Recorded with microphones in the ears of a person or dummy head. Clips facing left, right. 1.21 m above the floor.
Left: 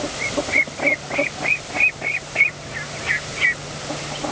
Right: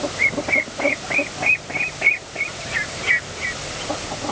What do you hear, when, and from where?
Only background noise.